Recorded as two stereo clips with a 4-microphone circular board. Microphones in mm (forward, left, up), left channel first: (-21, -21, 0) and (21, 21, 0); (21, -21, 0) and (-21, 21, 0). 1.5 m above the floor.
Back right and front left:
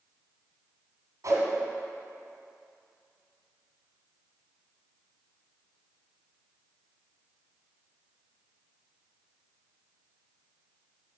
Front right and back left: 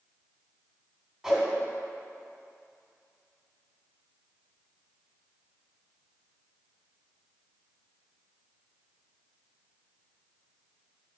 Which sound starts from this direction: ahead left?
A whoosh, at 1.2 s.